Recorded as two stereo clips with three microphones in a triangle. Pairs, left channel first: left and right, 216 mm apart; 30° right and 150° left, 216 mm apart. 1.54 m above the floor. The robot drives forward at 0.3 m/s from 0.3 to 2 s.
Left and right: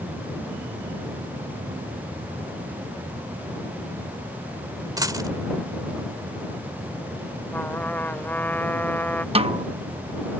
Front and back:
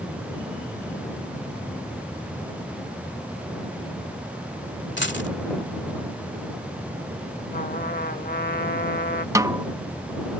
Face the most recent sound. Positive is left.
turn(degrees=-140)